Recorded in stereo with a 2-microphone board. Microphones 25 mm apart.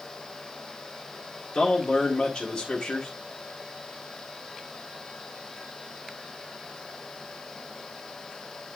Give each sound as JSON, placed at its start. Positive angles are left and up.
{"t": 1.5, "sound": "a man speaking", "side_deg": 35, "distance_m": 1.8}